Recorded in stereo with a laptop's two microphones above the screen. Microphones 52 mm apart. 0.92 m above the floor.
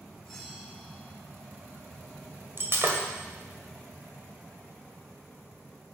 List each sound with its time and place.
0.2 s a bell: 10° left (ahead or behind), 2.5 m
2.6 s breaking glass: 45° right (ahead or behind), 1.8 m